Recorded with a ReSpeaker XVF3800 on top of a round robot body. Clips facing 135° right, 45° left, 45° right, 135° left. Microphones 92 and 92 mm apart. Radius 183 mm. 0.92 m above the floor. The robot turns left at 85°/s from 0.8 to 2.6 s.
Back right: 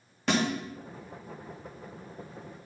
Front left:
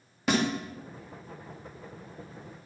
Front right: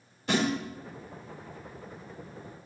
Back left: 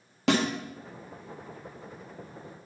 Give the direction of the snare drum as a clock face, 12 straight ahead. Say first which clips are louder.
Front left 1 dB, back left 3 dB; 8 o'clock.